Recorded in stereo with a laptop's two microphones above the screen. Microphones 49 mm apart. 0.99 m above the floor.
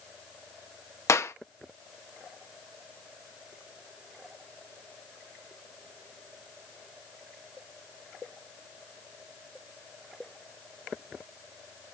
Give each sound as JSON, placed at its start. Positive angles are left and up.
{"t": 1.1, "sound": "a clap", "side_deg": 65, "distance_m": 1.0}